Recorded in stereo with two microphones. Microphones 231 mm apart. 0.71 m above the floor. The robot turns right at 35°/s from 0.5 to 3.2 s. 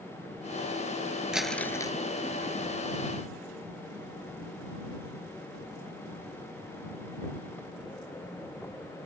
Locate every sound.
1.3 s crumpling: 5° right (ahead or behind); by 2.0 s 20° left (ahead or behind)